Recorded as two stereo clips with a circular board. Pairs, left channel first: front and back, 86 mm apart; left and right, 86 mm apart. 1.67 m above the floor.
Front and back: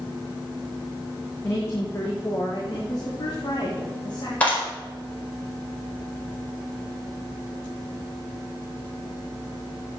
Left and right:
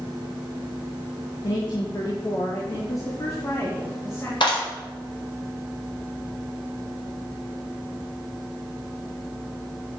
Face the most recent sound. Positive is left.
turn(degrees=75)